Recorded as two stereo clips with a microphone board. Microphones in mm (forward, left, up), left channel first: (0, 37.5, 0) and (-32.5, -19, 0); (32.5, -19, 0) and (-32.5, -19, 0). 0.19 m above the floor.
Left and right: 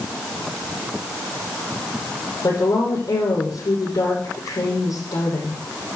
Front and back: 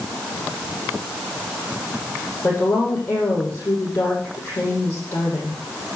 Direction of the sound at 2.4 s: 60° left.